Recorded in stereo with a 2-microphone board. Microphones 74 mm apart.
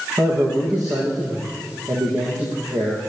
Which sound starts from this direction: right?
A man speaking, at 0.2 s.